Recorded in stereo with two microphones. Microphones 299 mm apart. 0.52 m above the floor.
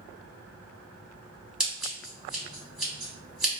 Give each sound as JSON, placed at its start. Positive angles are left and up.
{"t": 1.6, "sound": "scissors", "side_deg": -5, "distance_m": 1.3}